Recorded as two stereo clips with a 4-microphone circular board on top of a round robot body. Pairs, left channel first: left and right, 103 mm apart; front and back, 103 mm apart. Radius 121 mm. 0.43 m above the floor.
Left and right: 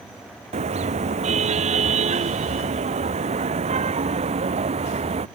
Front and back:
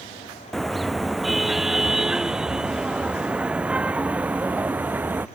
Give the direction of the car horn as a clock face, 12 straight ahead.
3 o'clock.